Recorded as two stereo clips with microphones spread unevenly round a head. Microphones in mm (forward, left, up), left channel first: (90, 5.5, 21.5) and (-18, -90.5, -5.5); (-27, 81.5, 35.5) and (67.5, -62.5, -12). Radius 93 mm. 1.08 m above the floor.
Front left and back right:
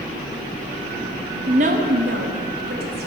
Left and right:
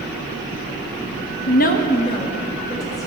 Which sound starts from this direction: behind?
A woman speaking, at 1.5 s.